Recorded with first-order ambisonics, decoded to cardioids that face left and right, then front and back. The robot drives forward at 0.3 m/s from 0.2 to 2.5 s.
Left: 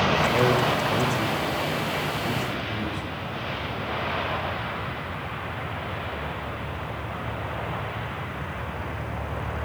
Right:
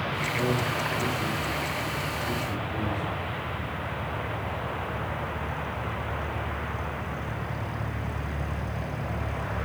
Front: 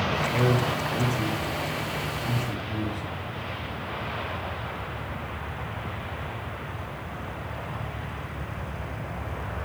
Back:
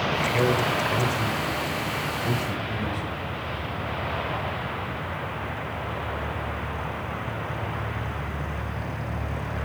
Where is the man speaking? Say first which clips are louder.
Left 6 dB, back 2 dB; 115° left, 1.0 m; by 3.0 s 145° left, 1.3 m.